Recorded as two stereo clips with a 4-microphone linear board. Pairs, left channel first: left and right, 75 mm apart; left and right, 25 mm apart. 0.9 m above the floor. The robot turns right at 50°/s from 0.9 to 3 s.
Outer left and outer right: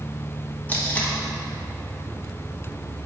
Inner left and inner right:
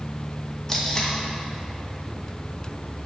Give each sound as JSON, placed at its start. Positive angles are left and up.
{"t": 0.7, "sound": "tape being pulled", "side_deg": 20, "distance_m": 0.9}